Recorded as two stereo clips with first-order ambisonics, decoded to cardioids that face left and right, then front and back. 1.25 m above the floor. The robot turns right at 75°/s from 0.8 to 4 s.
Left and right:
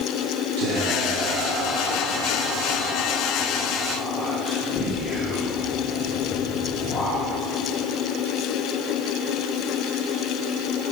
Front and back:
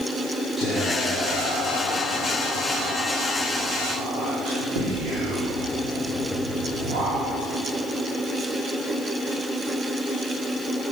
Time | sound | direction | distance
0.6 | whispering | 90° right | 4 m